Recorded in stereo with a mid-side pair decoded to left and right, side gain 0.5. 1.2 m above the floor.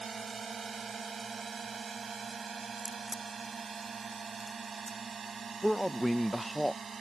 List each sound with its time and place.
0.0 s a drone: 30° right; by 7.0 s 35° right
2.8 s a crack: 5° right
5.6 s a man speaking: straight ahead